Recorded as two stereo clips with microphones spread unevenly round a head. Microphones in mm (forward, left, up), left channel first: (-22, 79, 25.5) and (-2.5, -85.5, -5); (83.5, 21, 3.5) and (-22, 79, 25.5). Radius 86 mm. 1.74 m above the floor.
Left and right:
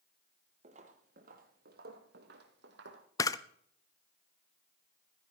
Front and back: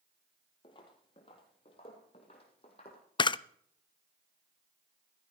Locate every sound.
0.6 s footsteps: 60° right, 1.9 m; by 3.0 s 85° right, 2.5 m
3.2 s a camera shutter: 25° left, 0.5 m